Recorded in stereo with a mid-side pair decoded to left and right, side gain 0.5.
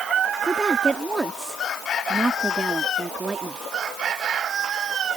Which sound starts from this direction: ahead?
A woman speaking, at 0.4 s.